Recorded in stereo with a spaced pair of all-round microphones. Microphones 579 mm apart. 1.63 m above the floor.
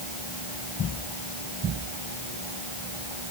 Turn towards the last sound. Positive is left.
No sound to turn to.